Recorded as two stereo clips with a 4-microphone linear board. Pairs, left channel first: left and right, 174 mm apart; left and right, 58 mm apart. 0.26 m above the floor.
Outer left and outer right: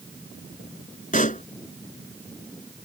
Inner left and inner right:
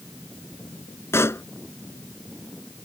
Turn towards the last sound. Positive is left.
turn(degrees=50)  # may be behind; listen again after turning